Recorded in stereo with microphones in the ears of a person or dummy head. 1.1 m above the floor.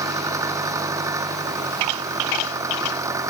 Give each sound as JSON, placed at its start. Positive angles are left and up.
{"t": 0.0, "sound": "an engine running", "side_deg": -15}